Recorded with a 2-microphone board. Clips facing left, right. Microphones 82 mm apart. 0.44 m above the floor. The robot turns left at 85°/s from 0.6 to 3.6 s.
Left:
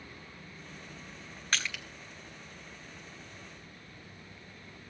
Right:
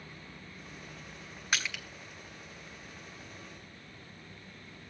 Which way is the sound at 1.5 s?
10° right (ahead or behind).